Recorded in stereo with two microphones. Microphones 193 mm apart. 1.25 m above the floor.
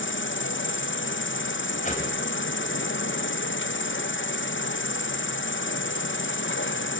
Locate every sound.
0.0 s an insect: 80° left, 0.9 m
1.8 s a whoosh: 40° left (ahead or behind), 5.5 m